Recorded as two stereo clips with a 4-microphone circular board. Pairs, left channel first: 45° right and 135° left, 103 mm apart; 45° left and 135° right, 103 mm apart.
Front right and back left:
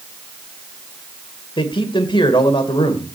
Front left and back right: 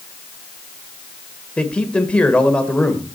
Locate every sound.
1.6 s a man speaking: 30° right, 2 m